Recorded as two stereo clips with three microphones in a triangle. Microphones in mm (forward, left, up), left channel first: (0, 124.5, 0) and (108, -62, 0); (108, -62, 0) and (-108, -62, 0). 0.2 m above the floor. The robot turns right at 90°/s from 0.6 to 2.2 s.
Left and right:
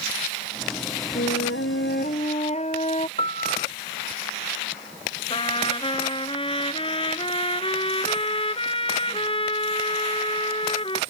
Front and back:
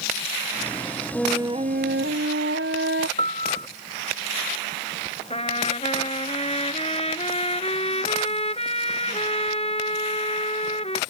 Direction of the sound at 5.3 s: 55° left.